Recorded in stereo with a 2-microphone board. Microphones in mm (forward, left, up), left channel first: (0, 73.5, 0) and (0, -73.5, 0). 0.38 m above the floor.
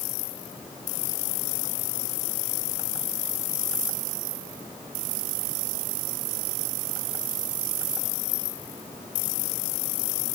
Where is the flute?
No flute in this recording.